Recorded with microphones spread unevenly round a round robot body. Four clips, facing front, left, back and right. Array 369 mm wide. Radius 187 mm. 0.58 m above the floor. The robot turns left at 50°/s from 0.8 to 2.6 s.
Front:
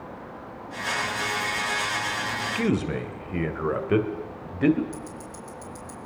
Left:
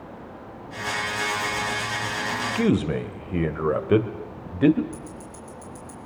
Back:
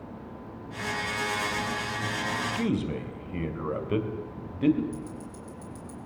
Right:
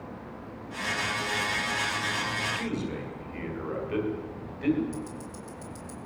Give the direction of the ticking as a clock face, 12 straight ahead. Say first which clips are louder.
Right 1 dB, front 1 dB; 1 o'clock.